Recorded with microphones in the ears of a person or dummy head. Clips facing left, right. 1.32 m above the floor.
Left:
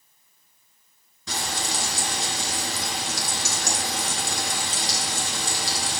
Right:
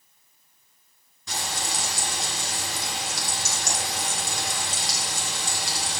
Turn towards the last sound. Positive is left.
turn(degrees=70)  # may be behind; listen again after turning